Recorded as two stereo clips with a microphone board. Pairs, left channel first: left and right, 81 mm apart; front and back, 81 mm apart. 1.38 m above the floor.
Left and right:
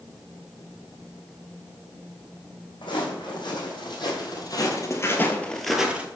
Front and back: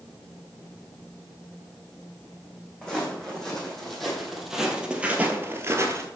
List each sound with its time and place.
2.8 s footsteps: 80° left, 4 m; by 6.1 s 155° right, 1.7 m